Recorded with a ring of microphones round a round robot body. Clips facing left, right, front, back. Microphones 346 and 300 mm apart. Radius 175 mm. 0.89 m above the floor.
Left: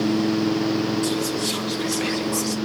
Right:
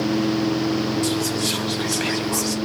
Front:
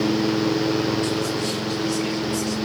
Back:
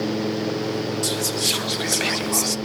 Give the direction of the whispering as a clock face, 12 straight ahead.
6 o'clock.